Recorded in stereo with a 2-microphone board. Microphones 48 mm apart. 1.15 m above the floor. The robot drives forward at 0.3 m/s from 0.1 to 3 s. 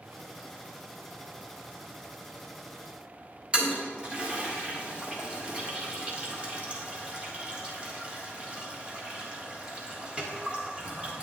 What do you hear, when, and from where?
3.5 s a toilet flushing: 25° right (ahead or behind), 1.5 m